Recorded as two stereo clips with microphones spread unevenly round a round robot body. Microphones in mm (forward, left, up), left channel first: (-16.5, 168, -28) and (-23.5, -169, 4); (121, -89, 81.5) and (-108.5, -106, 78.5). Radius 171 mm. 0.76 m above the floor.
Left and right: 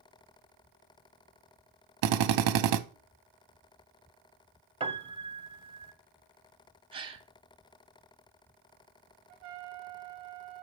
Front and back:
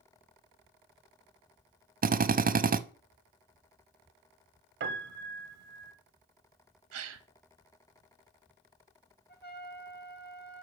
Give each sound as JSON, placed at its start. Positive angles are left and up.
{"t": 2.0, "sound": "a drill", "azimuth_deg": -120, "distance_m": 0.6}
{"t": 4.8, "sound": "a piano", "azimuth_deg": -155, "distance_m": 0.7}
{"t": 6.9, "sound": "a gasp", "azimuth_deg": -170, "distance_m": 0.8}
{"t": 9.3, "sound": "a trumpet", "azimuth_deg": -45, "distance_m": 1.1}